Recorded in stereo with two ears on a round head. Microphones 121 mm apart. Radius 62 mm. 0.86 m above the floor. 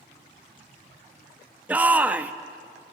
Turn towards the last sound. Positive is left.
turn(degrees=-10)  # may be behind; listen again after turning